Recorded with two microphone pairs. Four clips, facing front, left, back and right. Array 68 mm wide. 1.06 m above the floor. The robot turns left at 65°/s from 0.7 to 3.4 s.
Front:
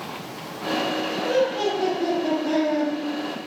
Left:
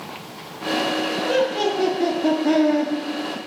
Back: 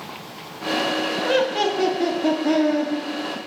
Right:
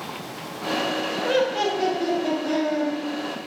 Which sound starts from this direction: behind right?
Laughter, at 1.2 s.